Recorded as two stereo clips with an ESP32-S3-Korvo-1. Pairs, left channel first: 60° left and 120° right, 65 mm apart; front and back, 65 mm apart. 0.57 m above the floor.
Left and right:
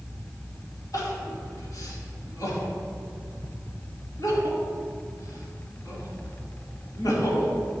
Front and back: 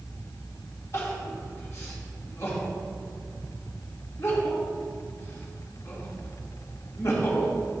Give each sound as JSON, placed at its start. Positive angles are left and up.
{"t": 0.9, "sound": "crying", "azimuth_deg": 40, "distance_m": 2.5}